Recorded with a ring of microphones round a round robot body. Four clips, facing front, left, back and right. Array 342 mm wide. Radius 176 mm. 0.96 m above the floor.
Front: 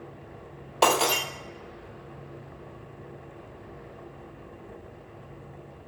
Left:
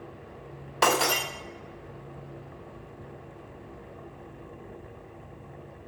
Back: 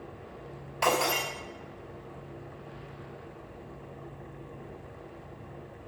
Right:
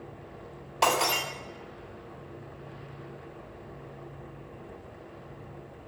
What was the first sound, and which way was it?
Breaking glass, 25° left.